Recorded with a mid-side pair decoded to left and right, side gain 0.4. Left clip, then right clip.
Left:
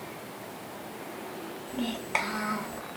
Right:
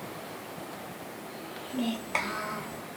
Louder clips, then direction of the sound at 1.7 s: Left 1 dB; straight ahead.